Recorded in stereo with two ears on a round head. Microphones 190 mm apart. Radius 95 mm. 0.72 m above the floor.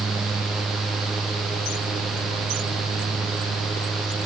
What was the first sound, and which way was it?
Only background noise.